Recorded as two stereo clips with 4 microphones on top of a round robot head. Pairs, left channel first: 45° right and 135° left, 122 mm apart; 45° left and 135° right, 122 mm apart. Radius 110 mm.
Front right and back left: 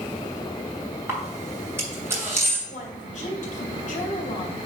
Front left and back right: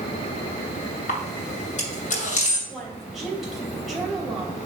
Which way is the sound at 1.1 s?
65° left.